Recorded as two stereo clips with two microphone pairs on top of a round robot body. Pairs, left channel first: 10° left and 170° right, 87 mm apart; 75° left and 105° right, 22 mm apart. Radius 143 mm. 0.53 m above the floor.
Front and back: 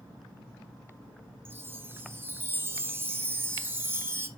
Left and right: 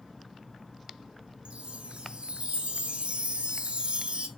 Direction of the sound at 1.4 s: 115° right.